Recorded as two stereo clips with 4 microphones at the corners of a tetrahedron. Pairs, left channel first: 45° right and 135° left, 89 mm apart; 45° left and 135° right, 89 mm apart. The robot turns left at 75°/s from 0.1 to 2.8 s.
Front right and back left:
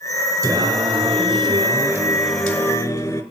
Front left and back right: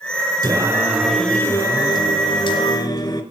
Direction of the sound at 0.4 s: 170° right.